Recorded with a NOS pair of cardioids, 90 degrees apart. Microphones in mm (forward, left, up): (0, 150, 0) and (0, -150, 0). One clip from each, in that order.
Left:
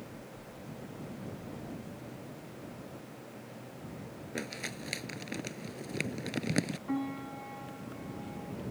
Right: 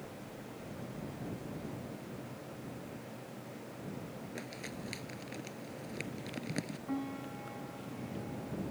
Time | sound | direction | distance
4.3 | crumpling | 55° left | ?
6.9 | a piano | 35° left | ?